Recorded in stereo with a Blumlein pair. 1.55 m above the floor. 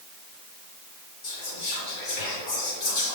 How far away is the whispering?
About 2.0 m.